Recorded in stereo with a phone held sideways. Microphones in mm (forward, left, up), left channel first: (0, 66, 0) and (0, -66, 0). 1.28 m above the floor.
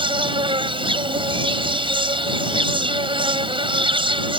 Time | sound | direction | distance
0.0 | an insect | 40° right (ahead or behind) | ?